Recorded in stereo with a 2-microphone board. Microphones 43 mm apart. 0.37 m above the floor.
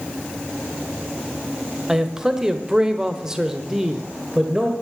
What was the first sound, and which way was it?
A man speaking, 10° right (ahead or behind).